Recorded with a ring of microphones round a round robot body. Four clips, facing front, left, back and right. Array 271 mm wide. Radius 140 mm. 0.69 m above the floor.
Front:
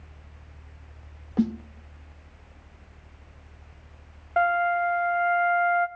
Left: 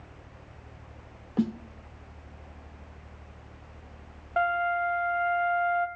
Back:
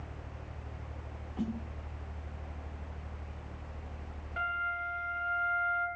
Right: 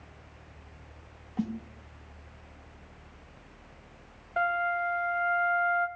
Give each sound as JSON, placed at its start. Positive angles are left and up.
{"t": 1.4, "sound": "a snare drum", "azimuth_deg": 40, "distance_m": 0.7}
{"t": 4.4, "sound": "a flute", "azimuth_deg": 25, "distance_m": 1.2}